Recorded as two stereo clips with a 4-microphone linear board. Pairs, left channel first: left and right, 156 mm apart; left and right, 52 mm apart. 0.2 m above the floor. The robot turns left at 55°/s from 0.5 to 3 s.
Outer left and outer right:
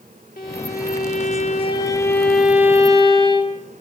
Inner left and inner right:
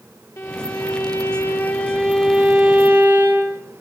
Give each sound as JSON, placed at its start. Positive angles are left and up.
{"t": 0.4, "sound": "a violin", "azimuth_deg": 105, "distance_m": 4.5}